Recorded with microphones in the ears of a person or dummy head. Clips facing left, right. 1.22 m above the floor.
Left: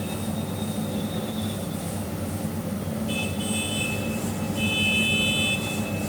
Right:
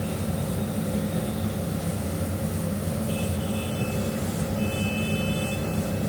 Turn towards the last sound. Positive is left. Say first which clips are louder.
# even
turn(degrees=-30)  # may be behind; listen again after turning